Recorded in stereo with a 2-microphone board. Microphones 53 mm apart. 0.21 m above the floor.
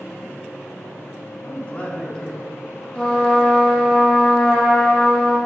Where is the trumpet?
15° left (ahead or behind), 3 m.